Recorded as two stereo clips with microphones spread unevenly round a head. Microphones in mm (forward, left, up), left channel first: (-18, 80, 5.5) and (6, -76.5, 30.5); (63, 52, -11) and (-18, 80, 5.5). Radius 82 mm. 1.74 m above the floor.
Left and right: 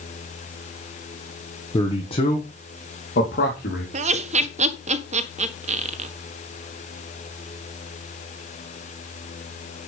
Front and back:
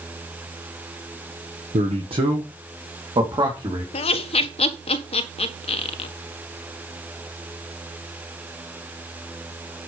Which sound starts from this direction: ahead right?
Laughter, at 3.9 s.